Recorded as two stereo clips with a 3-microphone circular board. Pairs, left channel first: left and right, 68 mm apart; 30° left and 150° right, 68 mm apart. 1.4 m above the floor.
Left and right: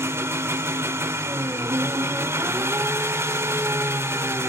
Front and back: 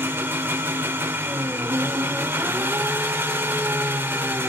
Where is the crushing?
I don't hear crushing.